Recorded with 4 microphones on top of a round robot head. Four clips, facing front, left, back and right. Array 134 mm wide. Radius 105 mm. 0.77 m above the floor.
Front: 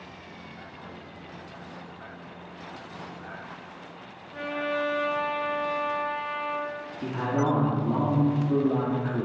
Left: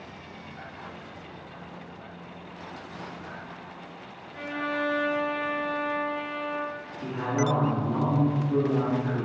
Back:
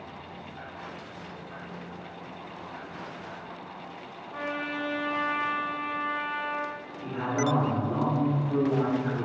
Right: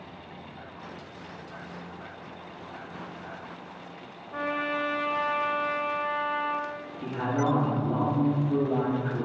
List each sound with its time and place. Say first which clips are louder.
4.3 s a trumpet: right 1 dB, front 4 dB; 90° right, 1.0 m
7.0 s a man speaking: even, front 2 dB; 20° right, 1.9 m